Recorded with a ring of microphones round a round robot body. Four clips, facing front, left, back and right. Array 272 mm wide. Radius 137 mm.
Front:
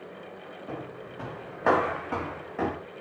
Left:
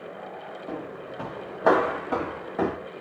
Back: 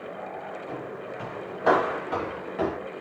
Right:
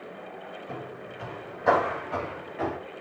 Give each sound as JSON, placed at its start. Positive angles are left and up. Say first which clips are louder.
{"t": 0.7, "sound": "footsteps", "louder": "left 5 dB, back 4 dB", "azimuth_deg": 70, "distance_m": 6.5}